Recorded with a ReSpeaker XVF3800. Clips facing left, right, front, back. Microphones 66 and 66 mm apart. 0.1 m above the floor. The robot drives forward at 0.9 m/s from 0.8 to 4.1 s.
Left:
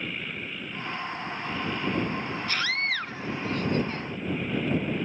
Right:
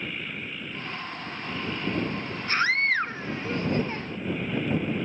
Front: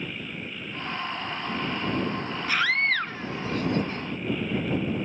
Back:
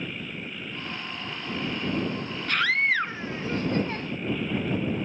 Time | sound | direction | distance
2.5 | a scream | 75° right | ?